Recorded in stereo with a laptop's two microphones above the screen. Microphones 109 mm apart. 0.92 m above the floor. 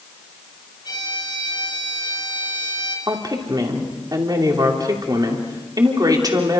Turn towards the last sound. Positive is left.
turn(degrees=-40)  # may be behind; listen again after turning